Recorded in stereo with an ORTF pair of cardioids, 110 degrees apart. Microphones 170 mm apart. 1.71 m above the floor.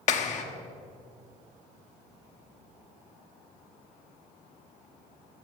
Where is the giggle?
No giggle in this recording.